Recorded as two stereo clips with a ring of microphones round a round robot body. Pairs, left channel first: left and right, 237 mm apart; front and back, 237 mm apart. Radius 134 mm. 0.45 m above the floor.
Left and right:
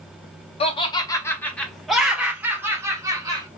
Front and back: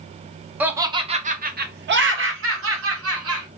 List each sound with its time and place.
0.6 s laughter: 105° left, 0.8 m; by 3.5 s 165° right, 1.7 m